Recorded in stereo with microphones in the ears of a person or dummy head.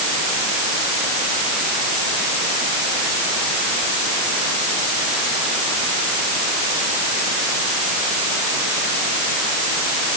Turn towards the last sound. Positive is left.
No sound to turn to.